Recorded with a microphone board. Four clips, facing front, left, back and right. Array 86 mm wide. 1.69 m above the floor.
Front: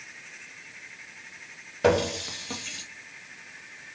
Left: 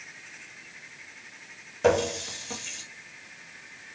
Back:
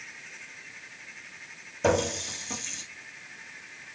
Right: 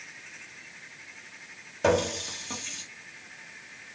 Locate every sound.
1.8 s a running tap: 5° right, 0.9 m